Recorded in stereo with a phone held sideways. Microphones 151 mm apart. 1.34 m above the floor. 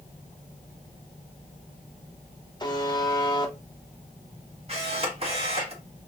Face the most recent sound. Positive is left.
turn(degrees=-40)  # may be behind; listen again after turning